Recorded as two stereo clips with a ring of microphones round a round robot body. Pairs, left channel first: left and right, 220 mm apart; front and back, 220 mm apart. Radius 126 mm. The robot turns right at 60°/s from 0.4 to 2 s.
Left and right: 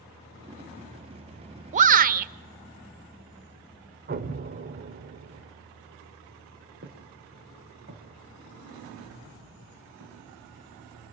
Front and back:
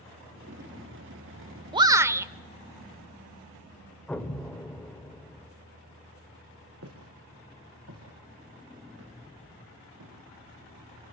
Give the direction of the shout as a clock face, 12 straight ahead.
4 o'clock.